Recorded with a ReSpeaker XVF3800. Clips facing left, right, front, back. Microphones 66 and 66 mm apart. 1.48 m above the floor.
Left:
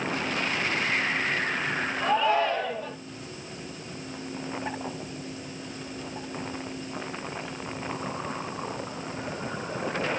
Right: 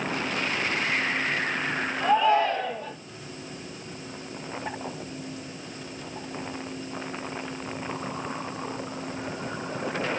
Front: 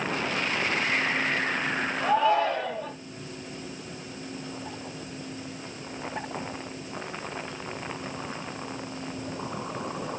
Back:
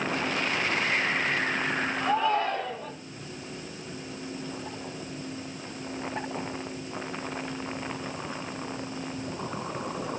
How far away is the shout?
About 4 m.